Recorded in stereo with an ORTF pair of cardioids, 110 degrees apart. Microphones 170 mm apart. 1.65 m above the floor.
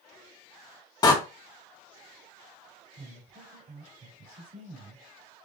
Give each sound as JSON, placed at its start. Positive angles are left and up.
{"t": 1.0, "sound": "a door slam", "azimuth_deg": 25, "distance_m": 1.5}
{"t": 3.0, "sound": "a woman speaking", "azimuth_deg": -55, "distance_m": 3.5}